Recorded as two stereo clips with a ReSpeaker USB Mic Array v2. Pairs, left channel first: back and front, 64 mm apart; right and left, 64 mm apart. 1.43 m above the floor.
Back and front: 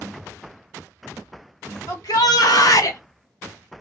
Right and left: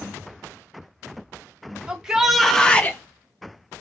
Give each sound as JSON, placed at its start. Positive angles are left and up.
{"t": 1.9, "sound": "a shout", "azimuth_deg": 165, "distance_m": 1.0}